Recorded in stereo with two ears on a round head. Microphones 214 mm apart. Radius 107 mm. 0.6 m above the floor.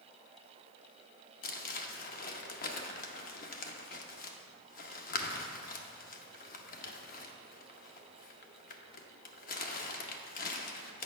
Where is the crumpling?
35° left (ahead or behind), 0.6 m.